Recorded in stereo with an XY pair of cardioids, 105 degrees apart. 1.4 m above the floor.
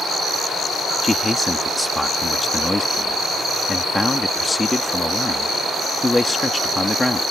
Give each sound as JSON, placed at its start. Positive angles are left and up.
{"t": 1.0, "sound": "a man speaking", "azimuth_deg": 15}